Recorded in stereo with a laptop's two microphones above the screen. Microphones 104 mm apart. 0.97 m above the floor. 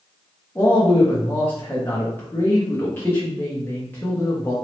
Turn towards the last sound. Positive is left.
turn(degrees=20)  # may be behind; listen again after turning